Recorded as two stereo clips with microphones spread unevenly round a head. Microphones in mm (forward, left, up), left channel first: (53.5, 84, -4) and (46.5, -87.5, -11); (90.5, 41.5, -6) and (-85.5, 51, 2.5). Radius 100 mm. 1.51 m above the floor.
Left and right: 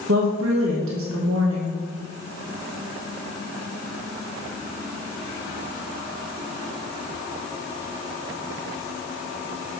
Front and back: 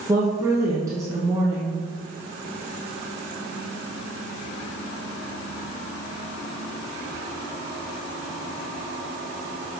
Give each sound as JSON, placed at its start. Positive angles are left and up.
{"t": 0.1, "sound": "a woman speaking", "azimuth_deg": -105, "distance_m": 1.6}